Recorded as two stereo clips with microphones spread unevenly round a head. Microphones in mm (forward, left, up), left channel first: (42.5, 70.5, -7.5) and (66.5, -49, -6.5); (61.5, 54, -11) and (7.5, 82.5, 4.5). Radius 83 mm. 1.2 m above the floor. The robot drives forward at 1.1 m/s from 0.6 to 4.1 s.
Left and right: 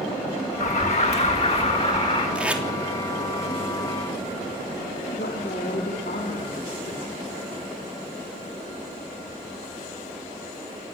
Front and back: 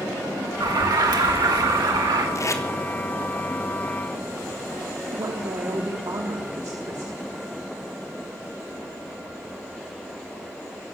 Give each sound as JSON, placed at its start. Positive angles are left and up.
{"t": 0.6, "sound": "an alarm", "azimuth_deg": 150, "distance_m": 2.0}
{"t": 2.4, "sound": "tape being pulled", "azimuth_deg": 0, "distance_m": 3.5}
{"t": 5.1, "sound": "a woman speaking", "azimuth_deg": 135, "distance_m": 3.5}